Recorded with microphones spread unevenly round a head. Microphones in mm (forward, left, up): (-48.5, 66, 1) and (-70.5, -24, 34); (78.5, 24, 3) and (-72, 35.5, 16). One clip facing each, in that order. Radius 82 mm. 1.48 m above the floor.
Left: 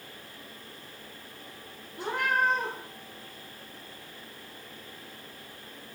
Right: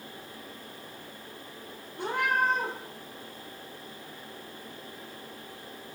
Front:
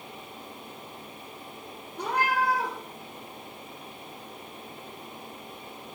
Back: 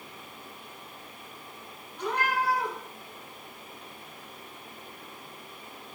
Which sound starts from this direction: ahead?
A cat meowing, at 2.0 s.